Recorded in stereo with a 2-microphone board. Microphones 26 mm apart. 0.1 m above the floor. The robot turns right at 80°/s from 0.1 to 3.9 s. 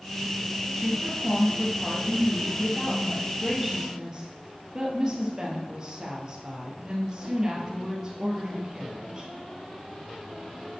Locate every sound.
0.8 s a woman speaking: 40° right, 2.5 m; by 9.3 s 150° right, 2.5 m